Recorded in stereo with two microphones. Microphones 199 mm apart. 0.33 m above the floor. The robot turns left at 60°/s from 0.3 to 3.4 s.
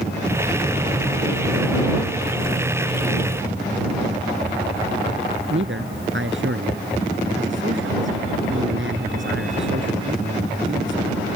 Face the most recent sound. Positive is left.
turn(degrees=-75)  # may be behind; listen again after turning